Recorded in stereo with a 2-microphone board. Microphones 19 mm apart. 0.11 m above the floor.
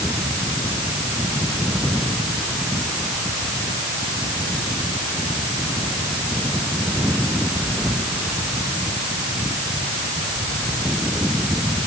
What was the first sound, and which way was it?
Only background noise.